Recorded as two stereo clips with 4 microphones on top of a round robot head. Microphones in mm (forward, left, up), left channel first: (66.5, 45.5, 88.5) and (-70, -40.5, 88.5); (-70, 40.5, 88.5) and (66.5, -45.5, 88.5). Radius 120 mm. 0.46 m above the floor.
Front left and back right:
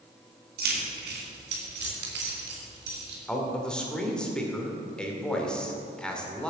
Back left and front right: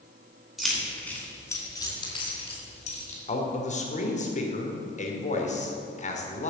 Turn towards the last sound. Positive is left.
turn(degrees=115)